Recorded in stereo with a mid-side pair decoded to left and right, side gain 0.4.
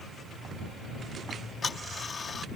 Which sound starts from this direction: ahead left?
Ticking, at 1.3 s.